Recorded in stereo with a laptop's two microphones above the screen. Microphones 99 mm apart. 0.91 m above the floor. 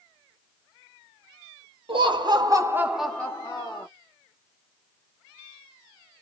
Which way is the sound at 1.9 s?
60° right (ahead or behind).